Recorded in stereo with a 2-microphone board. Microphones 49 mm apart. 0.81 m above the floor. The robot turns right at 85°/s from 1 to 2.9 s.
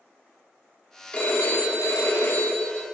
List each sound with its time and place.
1.1 s a phone ringing: 25° left, 1.4 m; by 2.9 s 175° left, 1.4 m